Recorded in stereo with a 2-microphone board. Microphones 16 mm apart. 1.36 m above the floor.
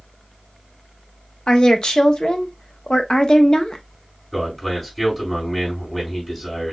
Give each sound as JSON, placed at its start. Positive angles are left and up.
{"t": 1.5, "sound": "a woman speaking", "side_deg": 65, "distance_m": 0.9}
{"t": 4.3, "sound": "a man speaking", "side_deg": 15, "distance_m": 4.0}